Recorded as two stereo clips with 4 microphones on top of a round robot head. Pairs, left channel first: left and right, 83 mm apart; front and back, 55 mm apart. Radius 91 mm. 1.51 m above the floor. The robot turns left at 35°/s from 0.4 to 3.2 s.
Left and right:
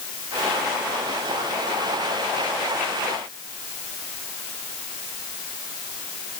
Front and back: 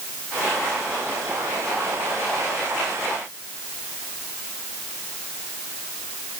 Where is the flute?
I don't hear a flute.